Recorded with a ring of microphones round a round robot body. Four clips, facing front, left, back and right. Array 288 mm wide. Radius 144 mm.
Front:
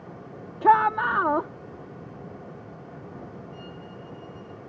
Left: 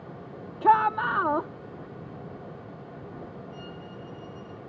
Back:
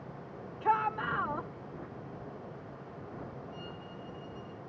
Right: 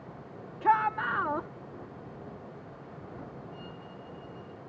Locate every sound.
0.6 s a shout: 25° left
3.5 s a violin: 85° left